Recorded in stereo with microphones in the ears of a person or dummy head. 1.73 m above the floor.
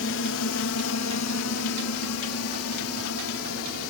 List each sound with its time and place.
0.0 s a drone: 55° left (ahead or behind); by 3.9 s 75° left (ahead or behind)